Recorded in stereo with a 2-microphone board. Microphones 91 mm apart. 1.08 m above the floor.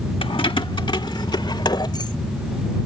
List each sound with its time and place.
0.2 s keys jangling: 75° left (ahead or behind); by 2.2 s 50° left (ahead or behind)